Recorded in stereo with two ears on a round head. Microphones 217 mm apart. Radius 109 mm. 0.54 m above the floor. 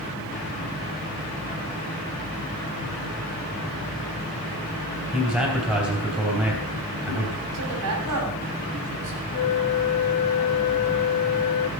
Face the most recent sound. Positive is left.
turn(degrees=70)  # may be behind; listen again after turning